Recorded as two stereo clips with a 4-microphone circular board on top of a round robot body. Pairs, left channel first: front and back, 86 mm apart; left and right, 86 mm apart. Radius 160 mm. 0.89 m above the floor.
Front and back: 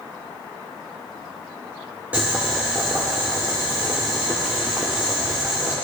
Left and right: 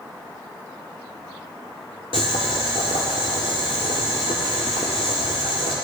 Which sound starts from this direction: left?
Boiling, at 2.1 s.